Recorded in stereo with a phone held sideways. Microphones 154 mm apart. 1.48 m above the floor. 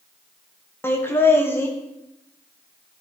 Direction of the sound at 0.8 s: 15° left (ahead or behind).